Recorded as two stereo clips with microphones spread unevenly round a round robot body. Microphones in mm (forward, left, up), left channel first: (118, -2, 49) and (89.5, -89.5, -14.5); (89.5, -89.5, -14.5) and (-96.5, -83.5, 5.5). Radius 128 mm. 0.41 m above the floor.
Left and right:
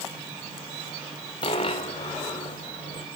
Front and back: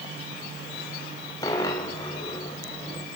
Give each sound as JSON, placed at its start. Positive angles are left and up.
{"t": 1.4, "sound": "a dropped coin", "azimuth_deg": 75, "distance_m": 1.5}